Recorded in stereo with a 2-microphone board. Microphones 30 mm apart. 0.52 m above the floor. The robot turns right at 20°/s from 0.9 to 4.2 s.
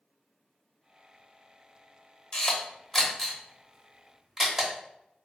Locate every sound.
2.3 s a camera shutter: 25° left (ahead or behind), 0.8 m; by 4.7 s 15° right (ahead or behind), 0.8 m